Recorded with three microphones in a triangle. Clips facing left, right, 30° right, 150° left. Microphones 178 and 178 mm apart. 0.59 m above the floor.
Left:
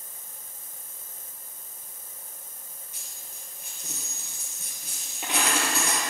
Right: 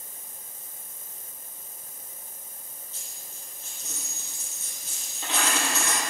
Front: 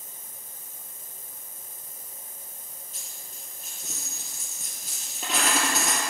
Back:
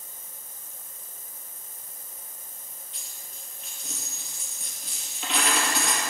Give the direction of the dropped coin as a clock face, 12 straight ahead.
12 o'clock.